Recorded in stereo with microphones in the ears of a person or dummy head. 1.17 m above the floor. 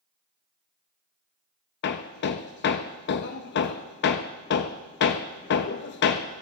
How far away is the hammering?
About 0.5 m.